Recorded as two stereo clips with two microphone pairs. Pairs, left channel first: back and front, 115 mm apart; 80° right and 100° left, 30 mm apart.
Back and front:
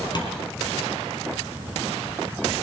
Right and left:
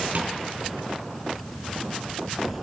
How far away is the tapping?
About 2.5 m.